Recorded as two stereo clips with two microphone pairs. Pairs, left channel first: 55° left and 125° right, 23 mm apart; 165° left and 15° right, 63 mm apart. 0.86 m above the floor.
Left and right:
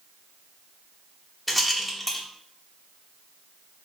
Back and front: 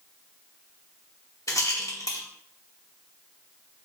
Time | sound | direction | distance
1.5 | a rattle | 150° left | 0.6 m